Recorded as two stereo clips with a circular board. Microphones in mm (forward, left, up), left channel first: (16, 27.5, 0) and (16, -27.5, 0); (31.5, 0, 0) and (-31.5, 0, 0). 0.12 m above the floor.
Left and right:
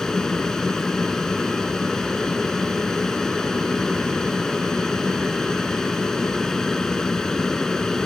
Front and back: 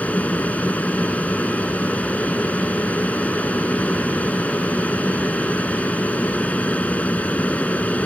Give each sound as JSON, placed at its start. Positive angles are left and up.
{"t": 0.0, "sound": "an aircraft", "azimuth_deg": 25}